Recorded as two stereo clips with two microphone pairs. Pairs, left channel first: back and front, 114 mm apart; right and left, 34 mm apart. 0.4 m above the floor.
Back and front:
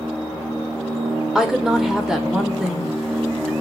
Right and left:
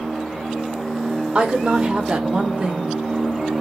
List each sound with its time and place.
1.4 s a woman speaking: 80° left, 0.8 m